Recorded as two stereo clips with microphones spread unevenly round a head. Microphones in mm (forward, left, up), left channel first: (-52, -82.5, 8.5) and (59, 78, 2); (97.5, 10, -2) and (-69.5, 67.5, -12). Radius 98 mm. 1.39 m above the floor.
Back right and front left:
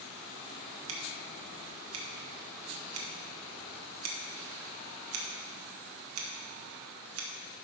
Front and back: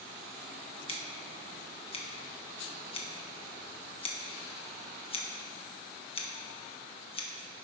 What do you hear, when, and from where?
0.9 s scissors: 40° left, 1.5 m